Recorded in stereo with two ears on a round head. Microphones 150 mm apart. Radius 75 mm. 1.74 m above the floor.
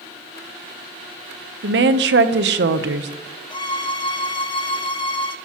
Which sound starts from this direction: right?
A woman speaking, at 1.6 s.